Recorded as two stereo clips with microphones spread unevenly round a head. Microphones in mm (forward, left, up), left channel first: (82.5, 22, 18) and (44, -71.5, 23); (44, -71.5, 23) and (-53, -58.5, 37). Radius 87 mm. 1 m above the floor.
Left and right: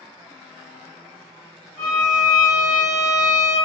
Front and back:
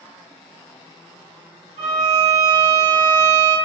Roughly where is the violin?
Behind left.